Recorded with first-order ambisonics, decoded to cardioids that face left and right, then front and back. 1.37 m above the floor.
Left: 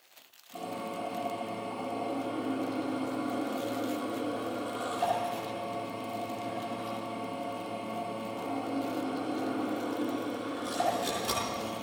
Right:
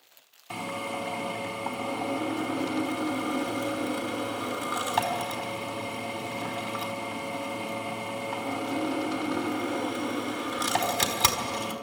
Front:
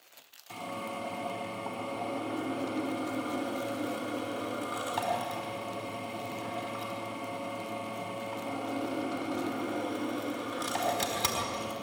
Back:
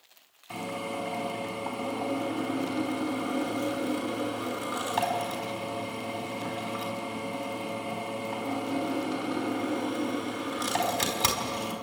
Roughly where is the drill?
Right.